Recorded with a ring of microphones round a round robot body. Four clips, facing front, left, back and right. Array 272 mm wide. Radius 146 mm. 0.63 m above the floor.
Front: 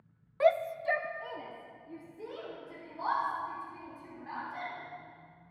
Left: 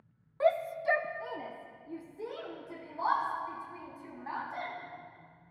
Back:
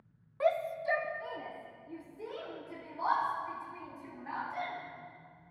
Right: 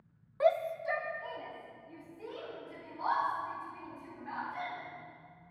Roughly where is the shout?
Ahead.